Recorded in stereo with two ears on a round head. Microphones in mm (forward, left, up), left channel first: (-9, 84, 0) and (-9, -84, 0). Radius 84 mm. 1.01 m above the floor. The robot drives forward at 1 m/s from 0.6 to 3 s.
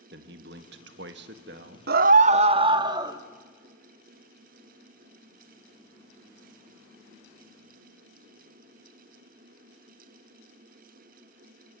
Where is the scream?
60° right (ahead or behind), 0.7 m; by 3.2 s 25° right (ahead or behind), 1.6 m.